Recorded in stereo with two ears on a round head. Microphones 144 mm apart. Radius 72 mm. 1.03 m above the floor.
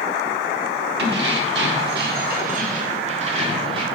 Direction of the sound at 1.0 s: 75° right (ahead or behind).